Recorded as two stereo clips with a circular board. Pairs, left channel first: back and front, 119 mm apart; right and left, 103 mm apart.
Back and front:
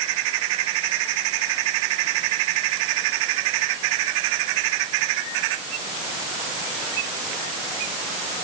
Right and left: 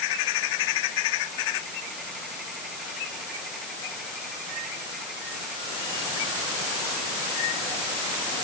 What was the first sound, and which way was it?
Only background noise.